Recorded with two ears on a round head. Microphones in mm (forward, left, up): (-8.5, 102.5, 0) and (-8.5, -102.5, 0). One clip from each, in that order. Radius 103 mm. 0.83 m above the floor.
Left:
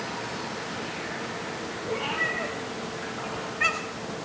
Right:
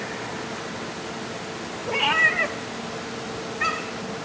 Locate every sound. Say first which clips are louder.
1.9 s a cat meowing: right 9 dB; 75° right (ahead or behind), 0.8 m; by 4.1 s 30° left (ahead or behind), 0.8 m